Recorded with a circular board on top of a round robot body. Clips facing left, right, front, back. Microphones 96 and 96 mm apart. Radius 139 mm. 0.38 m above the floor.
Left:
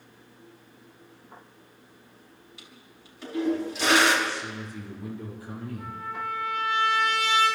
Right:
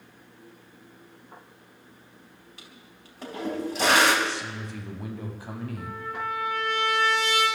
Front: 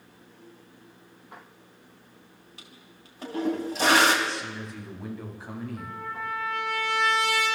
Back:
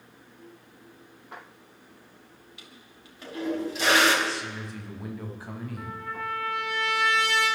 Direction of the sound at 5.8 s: 85° right.